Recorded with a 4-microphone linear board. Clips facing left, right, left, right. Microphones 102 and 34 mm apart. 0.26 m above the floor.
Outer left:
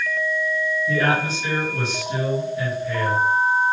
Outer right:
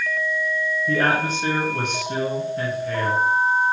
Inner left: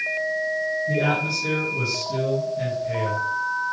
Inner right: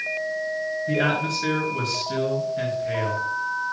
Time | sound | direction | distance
0.9 | a man speaking | 55° right (ahead or behind) | 4 m